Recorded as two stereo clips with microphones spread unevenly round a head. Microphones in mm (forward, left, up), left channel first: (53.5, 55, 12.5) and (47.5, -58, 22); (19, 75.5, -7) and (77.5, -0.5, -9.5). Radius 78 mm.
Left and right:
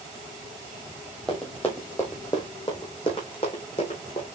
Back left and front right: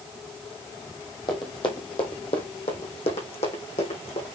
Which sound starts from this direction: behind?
Running footsteps, at 1.3 s.